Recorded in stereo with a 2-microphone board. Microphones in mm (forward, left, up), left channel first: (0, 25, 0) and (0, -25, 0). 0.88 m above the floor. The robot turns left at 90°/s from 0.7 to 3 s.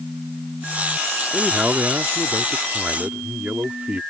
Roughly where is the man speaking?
Ahead.